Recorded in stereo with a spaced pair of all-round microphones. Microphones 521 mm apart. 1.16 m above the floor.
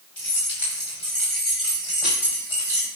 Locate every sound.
0.2 s keys jangling: 65° left (ahead or behind), 6 m; by 2.9 s 80° left, 4.5 m